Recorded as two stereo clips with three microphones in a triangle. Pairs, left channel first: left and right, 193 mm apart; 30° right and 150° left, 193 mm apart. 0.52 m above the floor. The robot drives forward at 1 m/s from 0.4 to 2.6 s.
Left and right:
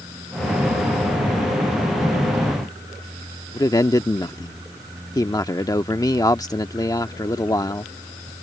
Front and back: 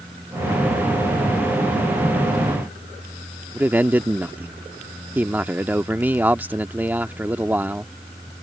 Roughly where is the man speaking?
Left.